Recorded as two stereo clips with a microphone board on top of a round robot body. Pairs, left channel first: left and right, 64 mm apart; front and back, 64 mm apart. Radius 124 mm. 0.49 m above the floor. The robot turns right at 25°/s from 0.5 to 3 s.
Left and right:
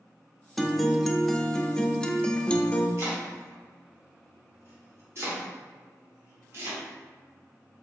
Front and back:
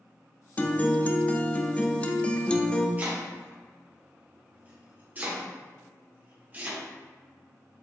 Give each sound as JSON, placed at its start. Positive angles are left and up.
{"t": 0.6, "sound": "a guitar", "azimuth_deg": -5, "distance_m": 0.7}
{"t": 3.0, "sound": "chopping", "azimuth_deg": -125, "distance_m": 1.7}